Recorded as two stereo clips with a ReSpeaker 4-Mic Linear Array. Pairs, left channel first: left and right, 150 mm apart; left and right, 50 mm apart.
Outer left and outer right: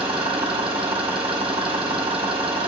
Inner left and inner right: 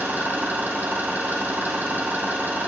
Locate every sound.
0.0 s an engine running: 40° right (ahead or behind), 2.0 m